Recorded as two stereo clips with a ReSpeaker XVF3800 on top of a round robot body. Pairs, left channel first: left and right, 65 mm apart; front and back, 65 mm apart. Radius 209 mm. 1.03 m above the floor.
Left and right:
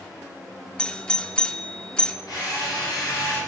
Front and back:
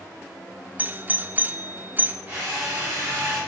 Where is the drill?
115° left, 5 m.